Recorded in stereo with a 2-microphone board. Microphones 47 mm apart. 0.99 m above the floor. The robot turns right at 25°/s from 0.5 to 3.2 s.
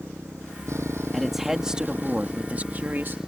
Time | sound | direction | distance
0.0 | a motorcycle | 80° right | ?
1.1 | a man speaking | straight behind | ?